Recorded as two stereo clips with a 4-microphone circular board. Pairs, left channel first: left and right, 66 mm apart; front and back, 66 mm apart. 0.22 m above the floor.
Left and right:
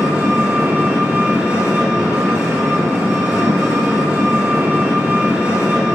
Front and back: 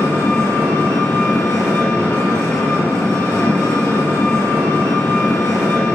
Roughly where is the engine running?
Ahead right.